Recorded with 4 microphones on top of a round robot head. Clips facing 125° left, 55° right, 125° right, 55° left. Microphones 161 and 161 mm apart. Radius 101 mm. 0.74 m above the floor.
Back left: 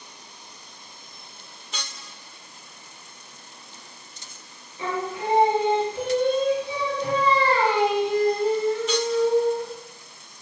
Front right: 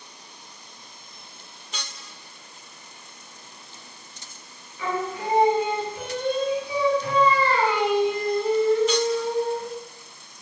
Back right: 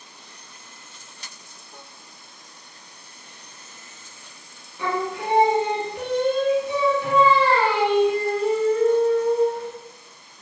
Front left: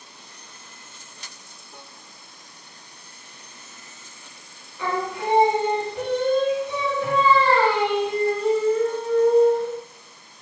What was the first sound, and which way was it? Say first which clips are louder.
Singing: even, even; 170° left.